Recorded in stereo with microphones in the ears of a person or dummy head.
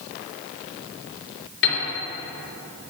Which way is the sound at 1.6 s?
65° left (ahead or behind).